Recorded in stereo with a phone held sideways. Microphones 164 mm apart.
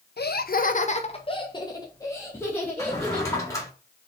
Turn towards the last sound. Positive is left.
turn(degrees=20)  # may be behind; listen again after turning